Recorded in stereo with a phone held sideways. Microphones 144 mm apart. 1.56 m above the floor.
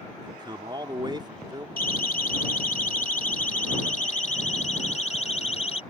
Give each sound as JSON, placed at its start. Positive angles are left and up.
{"t": 0.2, "sound": "a man speaking", "side_deg": -30}
{"t": 1.8, "sound": "a siren", "side_deg": 85}